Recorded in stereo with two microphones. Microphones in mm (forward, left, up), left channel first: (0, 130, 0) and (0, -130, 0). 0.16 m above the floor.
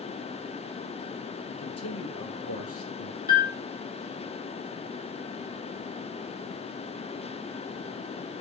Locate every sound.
1.5 s a man speaking: 60° left (ahead or behind), 3 m; by 3.2 s 50° left (ahead or behind), 2.5 m
3.3 s a piano: 35° left (ahead or behind), 2.5 m